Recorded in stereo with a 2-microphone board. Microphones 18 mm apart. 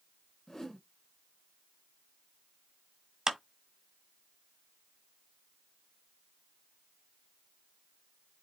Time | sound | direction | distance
0.5 | a whoosh | 25° left (ahead or behind) | 0.6 m
3.3 | a clap | 30° right (ahead or behind) | 1.4 m